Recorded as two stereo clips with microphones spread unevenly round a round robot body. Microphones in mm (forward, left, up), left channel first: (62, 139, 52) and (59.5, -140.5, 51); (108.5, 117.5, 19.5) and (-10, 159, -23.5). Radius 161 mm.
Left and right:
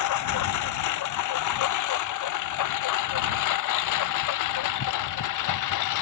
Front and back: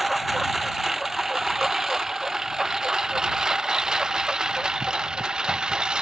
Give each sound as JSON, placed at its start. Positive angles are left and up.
{"t": 0.0, "sound": "a lawn mower", "azimuth_deg": 70}